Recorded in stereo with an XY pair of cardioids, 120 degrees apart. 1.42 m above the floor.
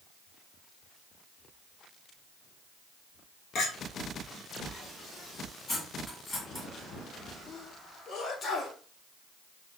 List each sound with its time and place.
3.5 s a clink: 55° left, 1.5 m
5.7 s cutlery clinking: 20° left, 1.9 m
7.5 s a sneeze: 45° left, 2.5 m